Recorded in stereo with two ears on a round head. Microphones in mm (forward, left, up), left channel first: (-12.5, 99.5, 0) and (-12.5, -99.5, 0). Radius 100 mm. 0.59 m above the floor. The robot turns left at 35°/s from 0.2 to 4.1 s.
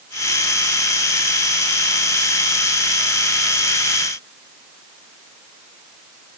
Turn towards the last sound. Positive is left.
No sound to turn to.